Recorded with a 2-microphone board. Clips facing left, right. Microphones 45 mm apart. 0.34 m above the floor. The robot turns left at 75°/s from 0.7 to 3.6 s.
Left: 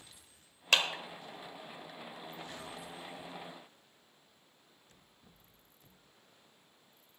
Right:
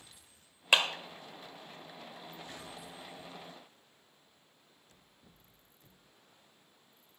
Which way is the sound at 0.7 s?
15° right (ahead or behind).